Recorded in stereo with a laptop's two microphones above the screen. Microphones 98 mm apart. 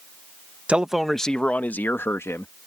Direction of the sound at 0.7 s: 10° right (ahead or behind).